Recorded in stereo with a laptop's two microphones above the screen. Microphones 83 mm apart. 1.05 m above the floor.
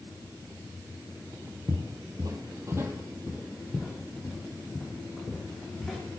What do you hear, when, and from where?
1.7 s footsteps: 55° right (ahead or behind), 1.8 m; by 6.0 s 10° left (ahead or behind), 4 m